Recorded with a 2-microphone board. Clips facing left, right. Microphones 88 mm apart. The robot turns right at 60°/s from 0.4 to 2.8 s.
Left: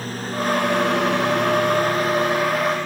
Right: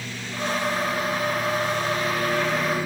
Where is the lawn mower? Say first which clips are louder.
Left 6 dB; 45° left (ahead or behind); by 2.9 s 10° right (ahead or behind).